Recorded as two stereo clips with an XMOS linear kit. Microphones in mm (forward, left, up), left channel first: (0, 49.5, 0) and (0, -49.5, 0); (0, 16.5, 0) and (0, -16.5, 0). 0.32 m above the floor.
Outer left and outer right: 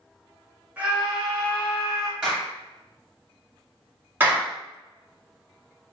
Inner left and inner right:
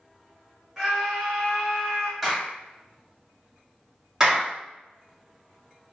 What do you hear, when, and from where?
0.8 s a scream: 15° right (ahead or behind), 0.9 m; by 2.1 s 30° left (ahead or behind), 1.0 m
2.2 s a clap: 10° right (ahead or behind), 0.9 m
4.2 s a clap: 20° right (ahead or behind), 1.1 m